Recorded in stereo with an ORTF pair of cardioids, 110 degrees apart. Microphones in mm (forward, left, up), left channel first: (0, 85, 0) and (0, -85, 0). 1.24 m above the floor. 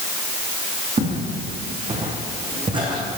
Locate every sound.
1.0 s footsteps: 45° right, 5 m; by 3.2 s 25° right, 3 m